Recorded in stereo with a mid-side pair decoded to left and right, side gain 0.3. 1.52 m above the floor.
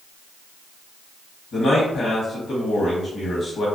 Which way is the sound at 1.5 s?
70° left.